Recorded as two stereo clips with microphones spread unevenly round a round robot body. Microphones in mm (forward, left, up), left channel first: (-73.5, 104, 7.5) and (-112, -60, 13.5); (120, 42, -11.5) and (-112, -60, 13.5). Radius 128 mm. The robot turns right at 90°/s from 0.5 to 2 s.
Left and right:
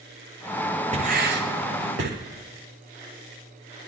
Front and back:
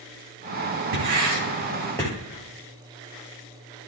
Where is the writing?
150° right, 7.5 m; by 2.1 s 55° right, 7.5 m.